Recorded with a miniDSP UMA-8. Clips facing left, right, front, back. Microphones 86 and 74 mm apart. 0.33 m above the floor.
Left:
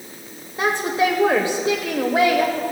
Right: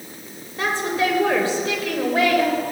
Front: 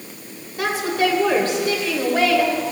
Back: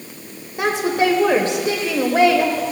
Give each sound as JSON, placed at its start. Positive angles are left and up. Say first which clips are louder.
{"t": 0.6, "sound": "a woman speaking", "louder": "left 2 dB, back 2 dB", "azimuth_deg": 140, "distance_m": 0.9}